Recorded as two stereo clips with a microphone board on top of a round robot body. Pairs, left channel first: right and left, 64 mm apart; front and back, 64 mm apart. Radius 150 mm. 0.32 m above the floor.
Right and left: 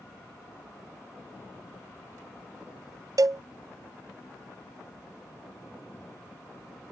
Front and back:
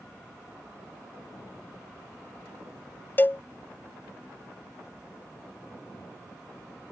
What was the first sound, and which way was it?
A cowbell, 60° left.